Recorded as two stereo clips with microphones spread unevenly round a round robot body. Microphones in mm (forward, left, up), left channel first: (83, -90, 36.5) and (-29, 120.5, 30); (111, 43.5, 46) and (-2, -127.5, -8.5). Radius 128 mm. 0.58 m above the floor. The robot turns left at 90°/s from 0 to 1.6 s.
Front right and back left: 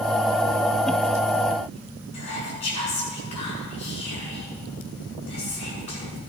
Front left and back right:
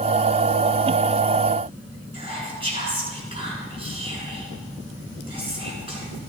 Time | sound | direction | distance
2.1 | whispering | 60° right | 7 m